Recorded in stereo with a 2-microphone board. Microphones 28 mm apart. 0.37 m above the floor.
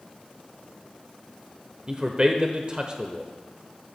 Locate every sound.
1.9 s a man speaking: 30° right (ahead or behind), 0.9 m